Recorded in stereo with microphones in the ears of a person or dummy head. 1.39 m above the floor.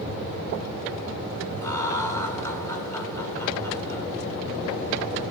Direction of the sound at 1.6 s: 15° left (ahead or behind).